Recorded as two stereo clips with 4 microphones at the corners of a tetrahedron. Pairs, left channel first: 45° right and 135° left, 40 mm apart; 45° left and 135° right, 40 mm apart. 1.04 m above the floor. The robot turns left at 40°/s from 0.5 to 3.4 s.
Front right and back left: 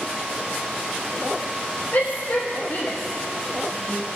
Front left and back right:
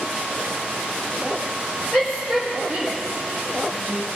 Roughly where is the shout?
Ahead.